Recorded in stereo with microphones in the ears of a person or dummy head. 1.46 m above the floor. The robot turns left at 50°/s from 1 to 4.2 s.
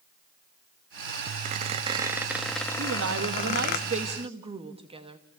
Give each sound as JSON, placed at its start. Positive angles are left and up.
{"t": 1.4, "sound": "a squeak", "azimuth_deg": -125, "distance_m": 1.3}
{"t": 2.8, "sound": "a woman speaking", "azimuth_deg": -75, "distance_m": 1.8}